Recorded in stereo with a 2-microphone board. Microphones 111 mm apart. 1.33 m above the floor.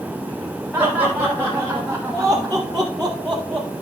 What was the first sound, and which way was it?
Laughter, 5° left (ahead or behind).